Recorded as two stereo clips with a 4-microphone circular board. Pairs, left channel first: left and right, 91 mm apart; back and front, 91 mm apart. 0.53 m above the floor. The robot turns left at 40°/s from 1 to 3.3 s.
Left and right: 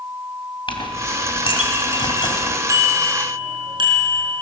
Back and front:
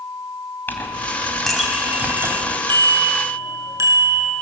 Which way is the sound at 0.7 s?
110° left.